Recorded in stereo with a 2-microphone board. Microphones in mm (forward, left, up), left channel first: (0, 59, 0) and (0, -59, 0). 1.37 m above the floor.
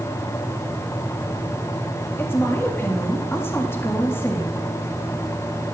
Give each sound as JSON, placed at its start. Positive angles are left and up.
{"t": 2.2, "sound": "a woman speaking", "side_deg": 20, "distance_m": 2.0}